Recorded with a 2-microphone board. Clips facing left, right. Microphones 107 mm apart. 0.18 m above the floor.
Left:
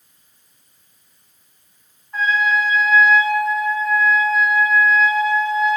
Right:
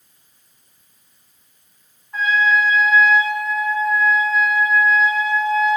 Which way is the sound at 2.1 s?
Centre (ahead or behind).